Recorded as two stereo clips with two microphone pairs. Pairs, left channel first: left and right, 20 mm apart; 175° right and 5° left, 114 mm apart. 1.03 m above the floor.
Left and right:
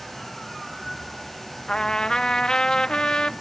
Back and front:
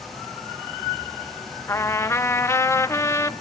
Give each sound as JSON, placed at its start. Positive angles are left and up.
{"t": 1.7, "sound": "a trumpet", "azimuth_deg": 125, "distance_m": 0.5}